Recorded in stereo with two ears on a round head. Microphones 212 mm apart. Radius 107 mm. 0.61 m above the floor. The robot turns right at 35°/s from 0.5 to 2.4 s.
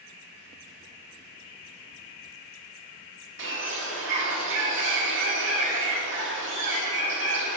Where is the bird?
55° right (ahead or behind), 1.5 m.